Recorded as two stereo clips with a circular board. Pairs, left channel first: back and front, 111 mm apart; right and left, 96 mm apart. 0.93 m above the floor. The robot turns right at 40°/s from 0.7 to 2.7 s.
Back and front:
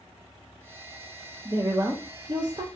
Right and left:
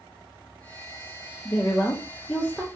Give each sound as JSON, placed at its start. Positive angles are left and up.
{"t": 1.4, "sound": "a woman speaking", "azimuth_deg": -55, "distance_m": 0.6}